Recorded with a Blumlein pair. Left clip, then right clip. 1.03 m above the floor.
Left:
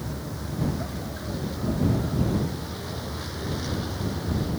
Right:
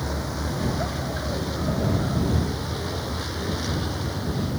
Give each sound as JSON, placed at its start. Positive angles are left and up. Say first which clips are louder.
{"t": 0.0, "sound": "a vehicle", "louder": "right 6 dB", "azimuth_deg": -65}